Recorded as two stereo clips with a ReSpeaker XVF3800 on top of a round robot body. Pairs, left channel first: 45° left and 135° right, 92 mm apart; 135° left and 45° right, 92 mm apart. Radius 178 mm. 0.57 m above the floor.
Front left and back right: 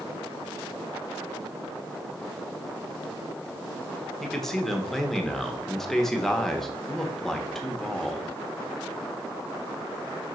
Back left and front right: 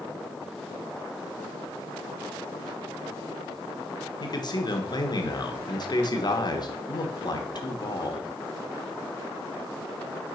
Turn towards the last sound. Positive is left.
turn(degrees=130)